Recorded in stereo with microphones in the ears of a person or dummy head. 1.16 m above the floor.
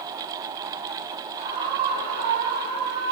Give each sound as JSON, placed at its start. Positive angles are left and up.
{"t": 1.4, "sound": "a scream", "side_deg": -45, "distance_m": 4.5}